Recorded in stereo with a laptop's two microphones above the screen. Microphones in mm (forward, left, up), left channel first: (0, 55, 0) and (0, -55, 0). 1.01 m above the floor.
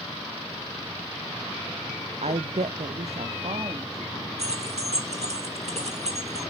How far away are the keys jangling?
About 1.7 m.